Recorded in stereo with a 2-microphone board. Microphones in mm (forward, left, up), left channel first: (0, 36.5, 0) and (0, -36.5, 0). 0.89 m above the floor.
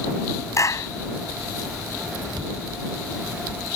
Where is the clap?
45° left (ahead or behind).